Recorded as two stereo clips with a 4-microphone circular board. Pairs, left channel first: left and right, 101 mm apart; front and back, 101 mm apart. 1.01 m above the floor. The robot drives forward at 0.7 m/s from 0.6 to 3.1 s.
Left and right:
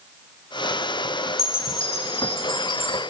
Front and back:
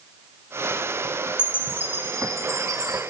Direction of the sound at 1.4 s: 100° left.